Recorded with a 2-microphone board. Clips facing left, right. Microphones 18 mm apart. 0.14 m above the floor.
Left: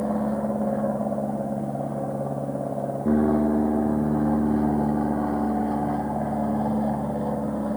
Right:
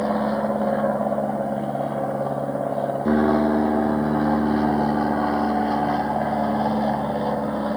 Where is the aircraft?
75° right (ahead or behind); by 7.8 s 65° right (ahead or behind).